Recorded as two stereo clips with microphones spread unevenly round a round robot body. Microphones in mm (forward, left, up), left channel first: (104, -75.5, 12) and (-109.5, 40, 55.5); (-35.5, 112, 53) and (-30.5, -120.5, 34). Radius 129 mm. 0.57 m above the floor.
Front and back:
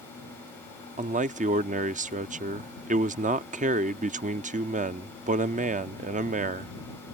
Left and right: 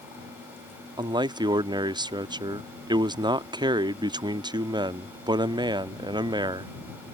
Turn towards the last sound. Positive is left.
turn(degrees=-150)